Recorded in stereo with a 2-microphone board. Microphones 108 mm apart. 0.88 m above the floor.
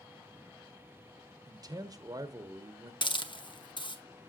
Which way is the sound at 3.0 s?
50° left (ahead or behind).